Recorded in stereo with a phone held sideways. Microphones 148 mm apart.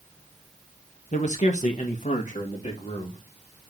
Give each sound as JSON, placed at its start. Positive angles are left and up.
{"t": 1.1, "sound": "a man speaking", "side_deg": 55, "distance_m": 1.3}